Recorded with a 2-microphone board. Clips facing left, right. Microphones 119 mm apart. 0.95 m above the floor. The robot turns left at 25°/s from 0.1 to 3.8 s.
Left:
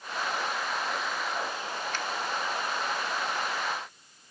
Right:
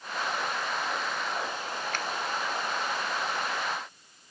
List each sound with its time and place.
1.9 s a finger snap: 55° right (ahead or behind), 1.3 m; by 2.0 s 50° right (ahead or behind), 1.3 m